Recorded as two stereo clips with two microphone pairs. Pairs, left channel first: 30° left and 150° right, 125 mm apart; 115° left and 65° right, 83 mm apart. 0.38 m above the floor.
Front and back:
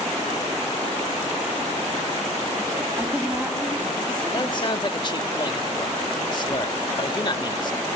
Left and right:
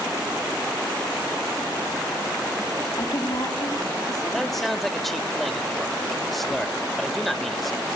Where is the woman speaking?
140° left, 3 m.